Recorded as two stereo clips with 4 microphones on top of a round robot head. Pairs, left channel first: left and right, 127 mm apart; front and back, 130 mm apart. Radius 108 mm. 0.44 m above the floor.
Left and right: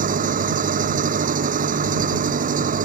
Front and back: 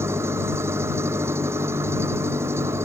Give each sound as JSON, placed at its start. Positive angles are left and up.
{"t": 0.0, "sound": "an engine running", "azimuth_deg": -105}